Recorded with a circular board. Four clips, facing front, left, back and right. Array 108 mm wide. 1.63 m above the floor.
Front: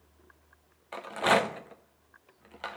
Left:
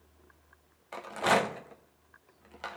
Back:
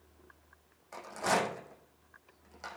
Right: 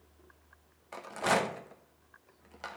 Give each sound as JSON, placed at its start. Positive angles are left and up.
{"t": 0.9, "sound": "a rattle", "azimuth_deg": 15, "distance_m": 0.9}